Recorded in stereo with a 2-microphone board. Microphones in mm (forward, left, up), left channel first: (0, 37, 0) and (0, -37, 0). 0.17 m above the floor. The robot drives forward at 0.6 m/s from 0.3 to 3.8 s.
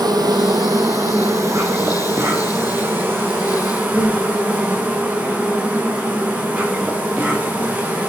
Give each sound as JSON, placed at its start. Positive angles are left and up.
{"t": 0.0, "sound": "an insect", "side_deg": -65, "distance_m": 1.5}